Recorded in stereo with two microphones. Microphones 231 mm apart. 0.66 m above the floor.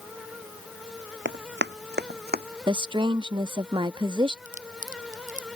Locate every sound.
1.2 s running footsteps: 55° right (ahead or behind); by 2.4 s 40° right (ahead or behind)
2.7 s a woman speaking: 20° right (ahead or behind)
4.5 s a crack: 35° right (ahead or behind)